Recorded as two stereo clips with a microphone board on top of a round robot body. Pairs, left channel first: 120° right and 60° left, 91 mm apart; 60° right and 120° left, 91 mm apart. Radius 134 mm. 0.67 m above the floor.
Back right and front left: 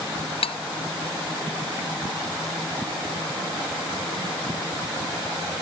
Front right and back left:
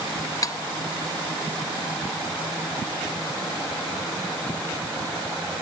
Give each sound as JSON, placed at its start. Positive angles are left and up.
{"t": 0.4, "sound": "cutlery clinking", "azimuth_deg": -110}